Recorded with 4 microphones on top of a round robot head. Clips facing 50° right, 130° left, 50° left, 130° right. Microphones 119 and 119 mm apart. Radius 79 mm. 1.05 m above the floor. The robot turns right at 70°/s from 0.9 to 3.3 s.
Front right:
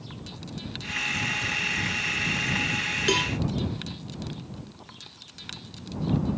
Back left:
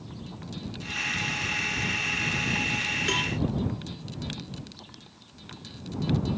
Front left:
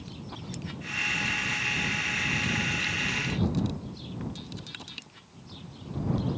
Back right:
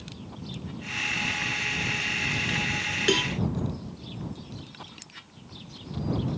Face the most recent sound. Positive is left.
turn(degrees=-100)